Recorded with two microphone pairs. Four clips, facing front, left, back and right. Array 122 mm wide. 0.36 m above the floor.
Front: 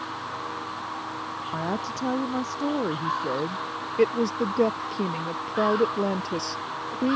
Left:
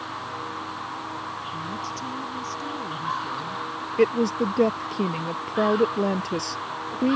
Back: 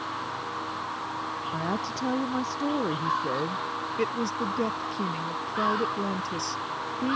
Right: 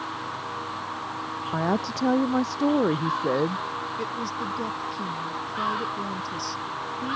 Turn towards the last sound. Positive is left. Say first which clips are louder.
# left 14 dB, front 7 dB
turn(degrees=45)